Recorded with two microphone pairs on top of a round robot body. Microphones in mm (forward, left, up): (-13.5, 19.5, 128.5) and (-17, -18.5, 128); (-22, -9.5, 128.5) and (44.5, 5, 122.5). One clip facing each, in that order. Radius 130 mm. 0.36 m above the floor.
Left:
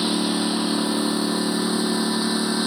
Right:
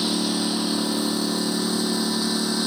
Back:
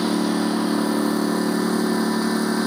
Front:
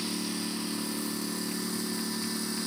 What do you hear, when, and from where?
0.0 s a lawn mower: 155° left